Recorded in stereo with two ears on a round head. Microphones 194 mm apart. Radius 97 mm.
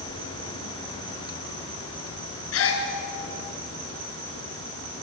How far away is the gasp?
About 4 m.